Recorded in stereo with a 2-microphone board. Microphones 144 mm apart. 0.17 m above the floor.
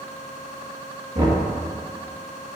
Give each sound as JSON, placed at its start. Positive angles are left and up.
{"t": 1.1, "sound": "knocking", "side_deg": -60, "distance_m": 3.0}